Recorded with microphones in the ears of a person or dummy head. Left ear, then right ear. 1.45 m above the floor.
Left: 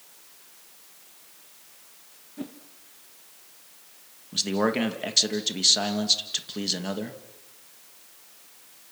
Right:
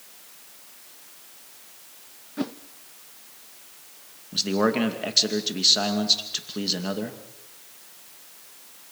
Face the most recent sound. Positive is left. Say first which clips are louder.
# right 2 dB
turn(degrees=10)  # may be behind; listen again after turning